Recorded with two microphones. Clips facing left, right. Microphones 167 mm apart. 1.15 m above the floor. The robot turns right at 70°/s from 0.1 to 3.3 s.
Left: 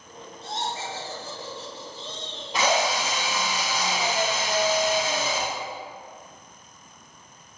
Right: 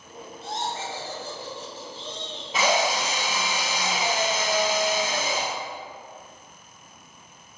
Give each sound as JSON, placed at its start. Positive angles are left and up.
{"t": 0.4, "sound": "laughter", "azimuth_deg": -140, "distance_m": 0.7}
{"t": 2.5, "sound": "a drill", "azimuth_deg": 180, "distance_m": 1.3}